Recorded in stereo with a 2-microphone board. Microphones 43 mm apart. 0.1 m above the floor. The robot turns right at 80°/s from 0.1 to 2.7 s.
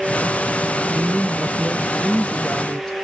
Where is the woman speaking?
130° right, 1.6 m; by 2.9 s 15° left, 1.6 m.